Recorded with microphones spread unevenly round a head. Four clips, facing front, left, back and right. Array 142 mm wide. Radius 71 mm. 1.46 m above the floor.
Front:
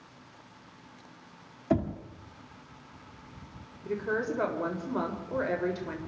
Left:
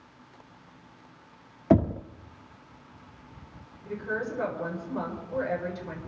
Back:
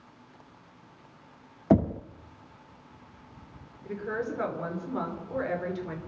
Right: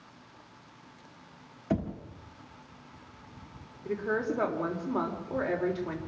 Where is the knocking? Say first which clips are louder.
Left 9 dB, back 5 dB; 135° left, 1.0 m.